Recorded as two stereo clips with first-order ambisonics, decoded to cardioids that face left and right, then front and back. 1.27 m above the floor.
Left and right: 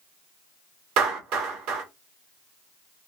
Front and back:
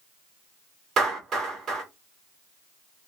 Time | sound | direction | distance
1.0 | a clap | 115° right | 2.5 m